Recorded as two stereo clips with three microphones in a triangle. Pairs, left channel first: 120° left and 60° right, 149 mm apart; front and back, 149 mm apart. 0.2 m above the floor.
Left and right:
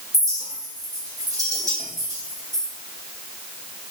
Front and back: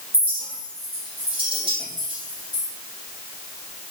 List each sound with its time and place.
0.1 s a clink: 125° right, 5 m